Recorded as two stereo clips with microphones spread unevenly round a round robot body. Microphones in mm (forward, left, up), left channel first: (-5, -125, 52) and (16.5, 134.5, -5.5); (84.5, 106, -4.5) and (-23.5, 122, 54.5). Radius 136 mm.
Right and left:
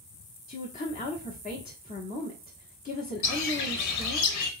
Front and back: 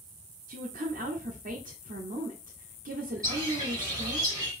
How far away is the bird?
About 1.0 m.